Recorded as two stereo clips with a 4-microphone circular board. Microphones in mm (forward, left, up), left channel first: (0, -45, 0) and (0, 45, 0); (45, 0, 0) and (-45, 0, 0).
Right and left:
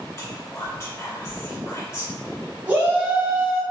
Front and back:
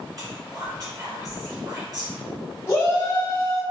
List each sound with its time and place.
0.2 s whispering: 145° right, 1.9 m
2.7 s a shout: 30° left, 1.3 m